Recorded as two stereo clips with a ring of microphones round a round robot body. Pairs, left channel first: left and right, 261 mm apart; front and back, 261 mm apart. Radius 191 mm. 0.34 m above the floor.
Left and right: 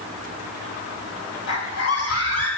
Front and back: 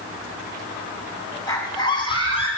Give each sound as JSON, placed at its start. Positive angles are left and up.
{"t": 1.5, "sound": "a scream", "azimuth_deg": 75, "distance_m": 4.0}